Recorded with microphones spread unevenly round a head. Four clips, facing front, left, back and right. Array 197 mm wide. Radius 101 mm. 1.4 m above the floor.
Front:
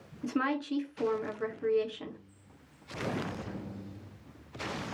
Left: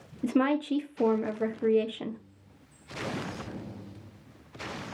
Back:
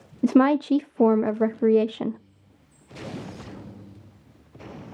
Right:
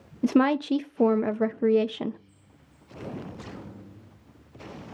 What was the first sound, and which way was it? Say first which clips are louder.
A woman speaking: right 4 dB, back 13 dB; 160° right.